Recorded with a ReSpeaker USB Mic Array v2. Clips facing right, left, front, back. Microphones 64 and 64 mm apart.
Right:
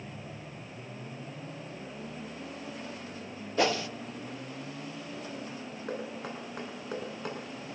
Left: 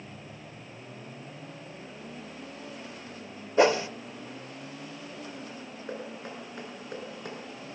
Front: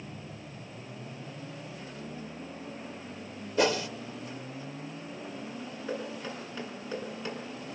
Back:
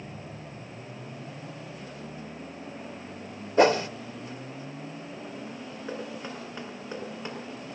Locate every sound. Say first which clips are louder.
3.6 s a whoosh: left 6 dB, back 6 dB; 150° left, 0.9 m
5.9 s knocking: right 1 dB, even; 110° right, 7.5 m